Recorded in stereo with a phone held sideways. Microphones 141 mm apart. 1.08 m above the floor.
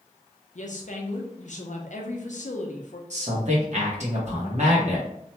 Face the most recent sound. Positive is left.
turn(degrees=-55)  # may be behind; listen again after turning